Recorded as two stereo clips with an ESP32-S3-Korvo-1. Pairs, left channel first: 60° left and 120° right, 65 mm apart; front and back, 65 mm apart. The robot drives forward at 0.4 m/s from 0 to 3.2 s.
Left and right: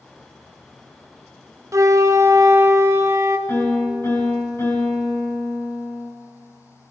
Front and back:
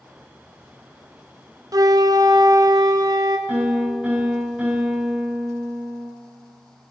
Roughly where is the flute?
Behind.